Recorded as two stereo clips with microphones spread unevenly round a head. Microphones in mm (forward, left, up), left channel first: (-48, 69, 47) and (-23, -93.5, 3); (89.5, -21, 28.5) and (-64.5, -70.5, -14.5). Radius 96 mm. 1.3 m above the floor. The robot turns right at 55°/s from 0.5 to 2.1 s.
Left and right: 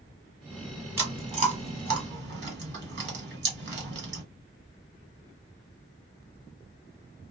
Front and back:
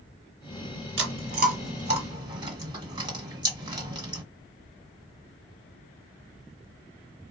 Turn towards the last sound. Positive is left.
turn(degrees=-95)